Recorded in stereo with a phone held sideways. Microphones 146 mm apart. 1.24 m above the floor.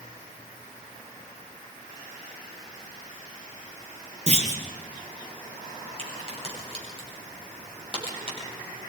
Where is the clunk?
50° right (ahead or behind), 4 m.